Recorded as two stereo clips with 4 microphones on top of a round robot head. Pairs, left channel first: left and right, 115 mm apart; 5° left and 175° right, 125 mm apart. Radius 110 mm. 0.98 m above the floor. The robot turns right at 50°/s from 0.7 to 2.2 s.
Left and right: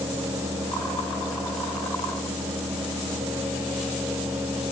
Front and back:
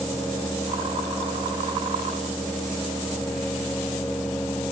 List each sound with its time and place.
Only background noise.